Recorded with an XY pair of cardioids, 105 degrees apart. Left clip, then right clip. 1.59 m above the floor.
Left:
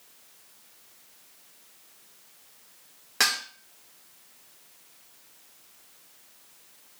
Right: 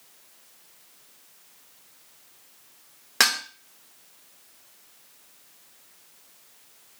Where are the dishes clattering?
40° right, 1.6 m.